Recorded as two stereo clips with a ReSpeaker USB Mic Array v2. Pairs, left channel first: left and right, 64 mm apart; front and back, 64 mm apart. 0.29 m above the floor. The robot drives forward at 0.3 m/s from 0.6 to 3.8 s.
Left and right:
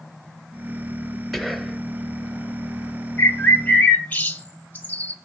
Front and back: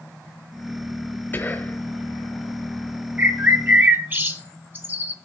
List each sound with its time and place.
1.3 s whispering: 5° left, 1.1 m
3.2 s a bird: 130° left, 1.3 m; by 5.2 s 140° left, 1.3 m